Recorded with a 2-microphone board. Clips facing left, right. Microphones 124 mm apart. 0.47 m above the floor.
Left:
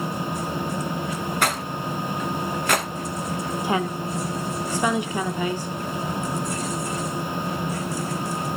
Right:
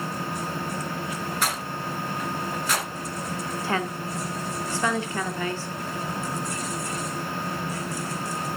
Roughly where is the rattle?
Left.